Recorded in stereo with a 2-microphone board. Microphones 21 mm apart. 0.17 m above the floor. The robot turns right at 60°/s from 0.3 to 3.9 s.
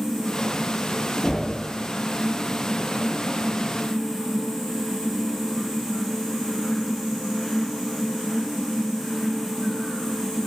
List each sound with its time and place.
1.2 s knocking: 30° left (ahead or behind), 1.3 m; by 1.6 s 45° left (ahead or behind), 1.3 m